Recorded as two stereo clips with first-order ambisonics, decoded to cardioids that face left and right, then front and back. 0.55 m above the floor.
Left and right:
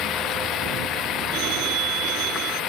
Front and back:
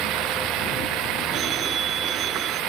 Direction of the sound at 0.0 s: 140° left.